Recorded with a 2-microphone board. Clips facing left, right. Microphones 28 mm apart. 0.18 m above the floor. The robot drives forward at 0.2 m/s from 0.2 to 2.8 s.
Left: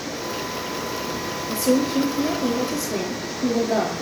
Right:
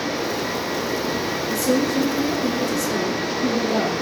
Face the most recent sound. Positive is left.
turn(degrees=45)  # may be behind; listen again after turning